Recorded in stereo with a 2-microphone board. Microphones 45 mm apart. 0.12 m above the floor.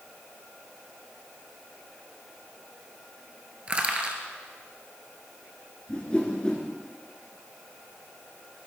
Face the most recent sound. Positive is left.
turn(degrees=25)  # may be behind; listen again after turning